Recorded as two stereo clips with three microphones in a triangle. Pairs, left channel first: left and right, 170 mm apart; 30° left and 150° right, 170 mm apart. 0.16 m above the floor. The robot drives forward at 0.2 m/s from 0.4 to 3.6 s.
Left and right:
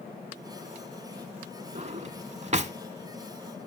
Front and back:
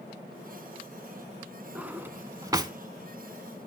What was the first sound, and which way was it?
A drawer, 70° right.